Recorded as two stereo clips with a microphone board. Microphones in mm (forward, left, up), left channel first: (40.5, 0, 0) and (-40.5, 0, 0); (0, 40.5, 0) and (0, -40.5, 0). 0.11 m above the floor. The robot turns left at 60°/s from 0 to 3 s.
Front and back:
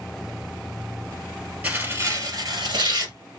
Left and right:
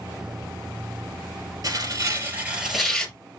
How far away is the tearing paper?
About 2 m.